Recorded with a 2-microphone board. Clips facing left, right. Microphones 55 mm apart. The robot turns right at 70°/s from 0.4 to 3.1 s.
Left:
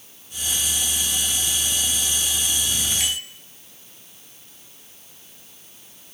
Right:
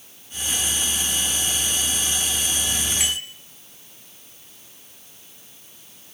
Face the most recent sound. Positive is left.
turn(degrees=-15)  # may be behind; listen again after turning